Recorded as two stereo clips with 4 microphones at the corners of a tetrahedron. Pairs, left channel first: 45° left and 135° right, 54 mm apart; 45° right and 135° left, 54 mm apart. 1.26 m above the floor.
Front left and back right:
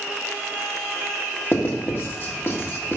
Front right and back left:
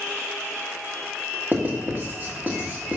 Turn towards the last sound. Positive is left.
turn(degrees=85)